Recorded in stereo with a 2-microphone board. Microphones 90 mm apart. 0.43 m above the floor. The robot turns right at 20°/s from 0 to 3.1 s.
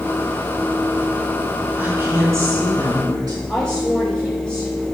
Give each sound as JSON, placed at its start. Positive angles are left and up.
{"t": 1.8, "sound": "a woman speaking", "side_deg": -20, "distance_m": 4.5}
{"t": 3.5, "sound": "a woman speaking", "side_deg": 15, "distance_m": 2.0}